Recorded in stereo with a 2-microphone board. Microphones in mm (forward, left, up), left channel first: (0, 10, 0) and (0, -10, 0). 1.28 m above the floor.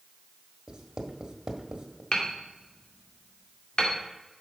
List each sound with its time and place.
0.7 s writing: 45° right (ahead or behind), 1.3 m
2.1 s hammering: 55° left (ahead or behind), 2 m